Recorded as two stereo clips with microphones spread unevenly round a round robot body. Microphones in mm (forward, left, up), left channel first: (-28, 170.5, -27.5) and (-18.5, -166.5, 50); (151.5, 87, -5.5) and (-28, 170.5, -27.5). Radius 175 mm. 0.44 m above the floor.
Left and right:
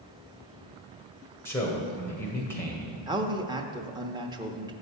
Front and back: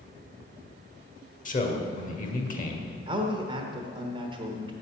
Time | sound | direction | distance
1.4 | a man speaking | 20° left | 2 m
3.1 | a man speaking | straight behind | 0.9 m